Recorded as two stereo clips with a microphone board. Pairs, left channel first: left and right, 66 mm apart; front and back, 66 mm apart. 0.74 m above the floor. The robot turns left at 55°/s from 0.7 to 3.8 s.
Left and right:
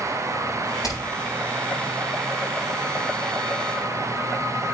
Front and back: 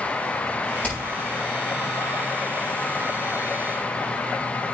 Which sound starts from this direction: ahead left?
Hammering, at 0.8 s.